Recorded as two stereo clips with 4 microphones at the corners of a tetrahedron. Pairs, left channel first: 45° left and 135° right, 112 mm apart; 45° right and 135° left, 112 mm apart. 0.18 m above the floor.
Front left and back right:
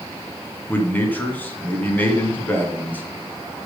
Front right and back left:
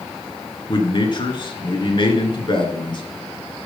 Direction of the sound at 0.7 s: 25° right.